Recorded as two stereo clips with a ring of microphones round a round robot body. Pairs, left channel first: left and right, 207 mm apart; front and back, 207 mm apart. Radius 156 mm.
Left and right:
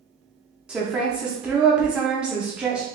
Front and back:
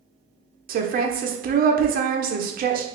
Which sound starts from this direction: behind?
A woman speaking, at 0.7 s.